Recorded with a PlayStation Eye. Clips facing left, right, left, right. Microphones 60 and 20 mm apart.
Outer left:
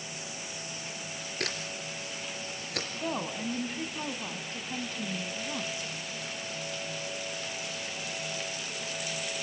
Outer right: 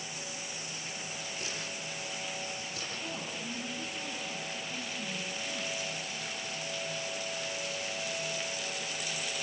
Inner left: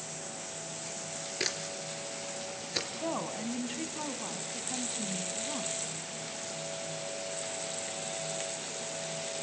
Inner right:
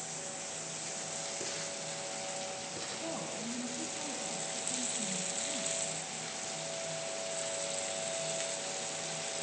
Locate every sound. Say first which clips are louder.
1.4 s a camera shutter: outer left 3 dB, inner left 5 dB; 75° left (ahead or behind), 3 m
2.9 s a woman speaking: outer left 9 dB, inner left 4 dB; 55° left (ahead or behind), 1.9 m